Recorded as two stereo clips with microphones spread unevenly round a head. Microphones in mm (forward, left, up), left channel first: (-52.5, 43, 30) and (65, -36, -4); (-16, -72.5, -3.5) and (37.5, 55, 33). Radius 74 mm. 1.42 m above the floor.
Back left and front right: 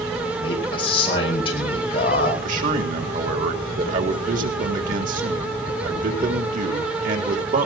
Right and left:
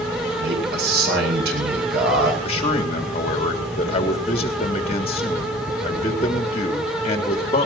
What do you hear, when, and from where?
0.4 s a man speaking: 90° left, 8.5 m
2.4 s a man speaking: 65° right, 3.5 m